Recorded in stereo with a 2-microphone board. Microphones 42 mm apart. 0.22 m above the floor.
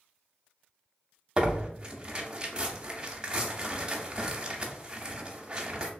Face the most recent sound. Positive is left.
turn(degrees=-20)  # may be behind; listen again after turning